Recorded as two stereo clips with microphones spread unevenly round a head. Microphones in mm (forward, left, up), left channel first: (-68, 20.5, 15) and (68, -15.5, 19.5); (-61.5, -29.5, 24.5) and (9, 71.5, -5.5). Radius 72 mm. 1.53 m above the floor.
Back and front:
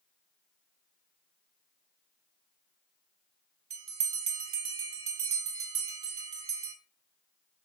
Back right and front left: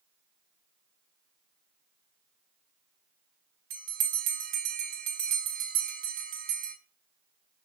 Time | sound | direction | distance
3.7 | a bell | 30° left | 3 m